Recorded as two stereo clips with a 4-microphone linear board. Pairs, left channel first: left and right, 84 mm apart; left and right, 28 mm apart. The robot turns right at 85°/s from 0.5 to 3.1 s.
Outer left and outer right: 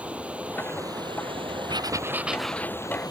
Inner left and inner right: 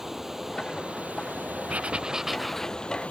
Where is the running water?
165° right; by 3.1 s 55° left.